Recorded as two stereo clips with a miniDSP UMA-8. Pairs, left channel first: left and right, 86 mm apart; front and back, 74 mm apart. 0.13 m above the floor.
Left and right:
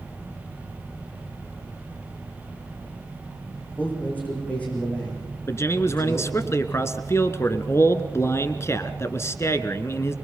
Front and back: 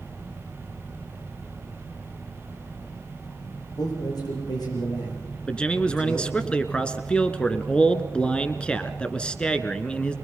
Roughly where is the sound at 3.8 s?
Ahead.